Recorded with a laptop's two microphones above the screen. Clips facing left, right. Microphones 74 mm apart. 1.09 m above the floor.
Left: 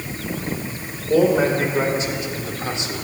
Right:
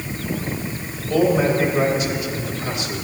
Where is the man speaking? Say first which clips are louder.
Left 1 dB; 35° left (ahead or behind), 3.5 m; by 3.0 s 30° left (ahead or behind), 2.5 m.